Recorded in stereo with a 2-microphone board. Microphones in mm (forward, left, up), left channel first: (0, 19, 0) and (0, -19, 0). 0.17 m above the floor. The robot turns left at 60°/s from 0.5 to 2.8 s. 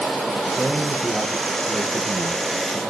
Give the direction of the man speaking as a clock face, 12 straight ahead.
6 o'clock.